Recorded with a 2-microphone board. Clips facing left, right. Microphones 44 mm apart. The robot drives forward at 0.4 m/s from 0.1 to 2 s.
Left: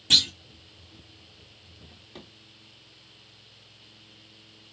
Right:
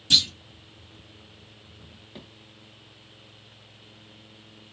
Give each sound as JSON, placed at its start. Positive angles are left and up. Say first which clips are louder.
{"t": 0.1, "sound": "a clunk", "louder": "even", "side_deg": 25, "distance_m": 2.0}
{"t": 1.9, "sound": "a drawer", "louder": "right 1 dB", "side_deg": -10, "distance_m": 1.5}